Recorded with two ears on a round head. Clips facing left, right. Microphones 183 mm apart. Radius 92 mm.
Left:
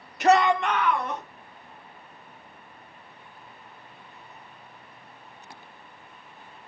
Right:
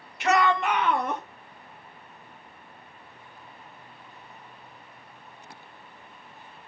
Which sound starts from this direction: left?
A shout, at 0.2 s.